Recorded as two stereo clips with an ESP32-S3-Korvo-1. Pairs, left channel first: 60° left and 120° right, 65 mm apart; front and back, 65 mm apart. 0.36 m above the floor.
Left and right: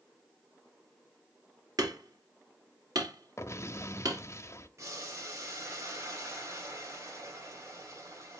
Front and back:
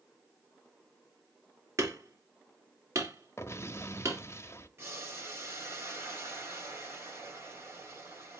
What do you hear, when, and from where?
1.8 s hammering: 140° right, 2.5 m
3.4 s an explosion: 30° left, 0.6 m
4.8 s boiling: 140° right, 2.5 m